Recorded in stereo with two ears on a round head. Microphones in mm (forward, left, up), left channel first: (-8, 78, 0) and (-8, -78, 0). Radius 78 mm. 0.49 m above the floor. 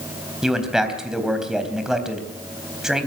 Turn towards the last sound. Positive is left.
turn(degrees=-5)  # may be behind; listen again after turning